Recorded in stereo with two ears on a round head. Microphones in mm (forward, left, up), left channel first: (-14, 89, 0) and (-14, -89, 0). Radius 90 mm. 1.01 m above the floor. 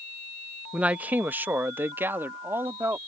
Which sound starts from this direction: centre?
A man speaking, at 0.7 s.